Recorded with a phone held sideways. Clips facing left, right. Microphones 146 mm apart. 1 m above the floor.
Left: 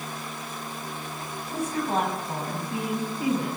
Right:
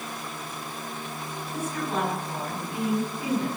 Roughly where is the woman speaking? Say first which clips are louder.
Left 3 dB; left.